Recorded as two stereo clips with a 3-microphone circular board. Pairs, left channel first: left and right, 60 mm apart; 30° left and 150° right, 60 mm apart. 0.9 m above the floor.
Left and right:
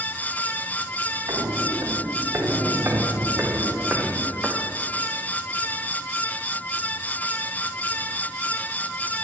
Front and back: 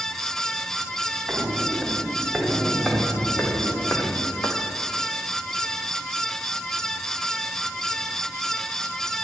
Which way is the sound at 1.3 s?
75° right.